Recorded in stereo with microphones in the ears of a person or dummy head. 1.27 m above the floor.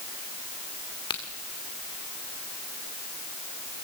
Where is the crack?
25° left (ahead or behind), 2 m.